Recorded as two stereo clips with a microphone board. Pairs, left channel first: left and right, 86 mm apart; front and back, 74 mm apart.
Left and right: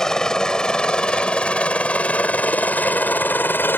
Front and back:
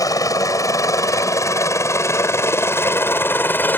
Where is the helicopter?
10° left; by 3.8 s 45° left.